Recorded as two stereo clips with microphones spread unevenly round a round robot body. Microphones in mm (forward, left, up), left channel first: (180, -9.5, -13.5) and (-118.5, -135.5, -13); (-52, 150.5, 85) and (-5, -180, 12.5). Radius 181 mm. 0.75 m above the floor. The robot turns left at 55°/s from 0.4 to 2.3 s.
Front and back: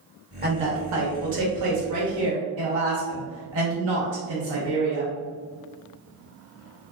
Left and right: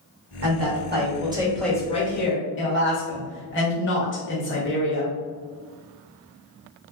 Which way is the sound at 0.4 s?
100° right.